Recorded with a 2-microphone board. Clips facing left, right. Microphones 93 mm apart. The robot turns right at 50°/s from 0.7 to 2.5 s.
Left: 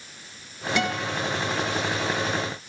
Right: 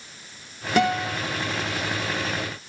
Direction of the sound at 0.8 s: 45° right (ahead or behind).